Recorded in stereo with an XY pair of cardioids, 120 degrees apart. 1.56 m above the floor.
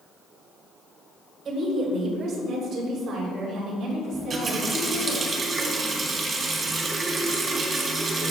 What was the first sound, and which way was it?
A woman speaking, 60° right.